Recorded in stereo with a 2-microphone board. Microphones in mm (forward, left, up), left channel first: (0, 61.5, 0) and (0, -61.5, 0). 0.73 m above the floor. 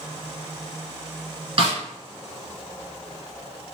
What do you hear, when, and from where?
1.6 s a snare drum: 55° right (ahead or behind), 1.5 m